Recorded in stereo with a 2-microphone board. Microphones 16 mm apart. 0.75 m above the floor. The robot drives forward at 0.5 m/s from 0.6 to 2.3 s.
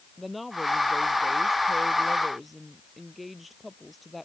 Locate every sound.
0.2 s a woman speaking: centre (ahead or behind)